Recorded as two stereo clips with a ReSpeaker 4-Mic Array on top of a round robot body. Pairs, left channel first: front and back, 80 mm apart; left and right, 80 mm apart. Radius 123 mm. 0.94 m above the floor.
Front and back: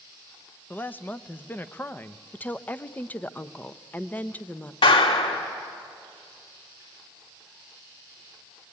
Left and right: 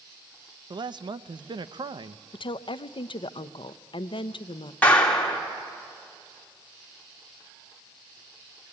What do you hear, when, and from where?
0.7 s a man speaking: 65° right, 0.8 m
2.3 s a woman speaking: 70° left, 0.7 m
4.8 s a clap: 15° left, 3 m